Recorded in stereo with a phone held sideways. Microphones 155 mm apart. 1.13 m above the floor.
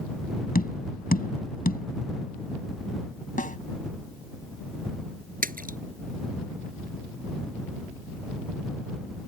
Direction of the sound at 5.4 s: 75° right (ahead or behind).